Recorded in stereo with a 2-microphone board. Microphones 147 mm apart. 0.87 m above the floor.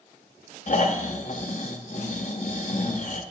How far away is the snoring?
About 0.6 m.